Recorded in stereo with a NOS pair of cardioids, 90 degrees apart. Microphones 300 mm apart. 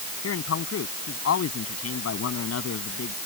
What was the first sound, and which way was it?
A man speaking, 55° left.